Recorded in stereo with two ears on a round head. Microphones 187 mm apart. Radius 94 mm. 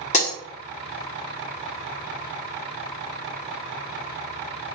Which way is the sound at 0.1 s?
35° left (ahead or behind).